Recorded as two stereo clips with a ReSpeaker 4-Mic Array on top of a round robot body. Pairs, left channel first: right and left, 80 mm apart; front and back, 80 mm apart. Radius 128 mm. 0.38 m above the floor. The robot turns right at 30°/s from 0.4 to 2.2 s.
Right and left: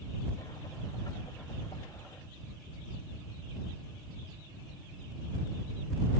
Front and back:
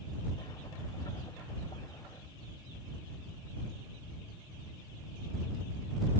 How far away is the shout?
No shout in this recording.